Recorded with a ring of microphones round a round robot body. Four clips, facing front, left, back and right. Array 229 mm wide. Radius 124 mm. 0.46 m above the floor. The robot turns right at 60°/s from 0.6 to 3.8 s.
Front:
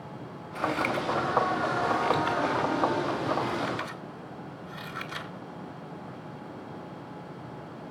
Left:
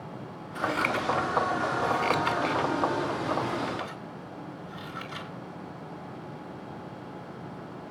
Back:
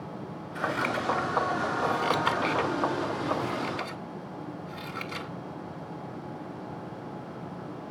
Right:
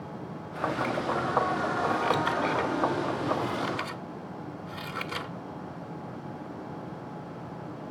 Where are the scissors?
65° left, 1.9 m; by 5.3 s 105° right, 1.9 m.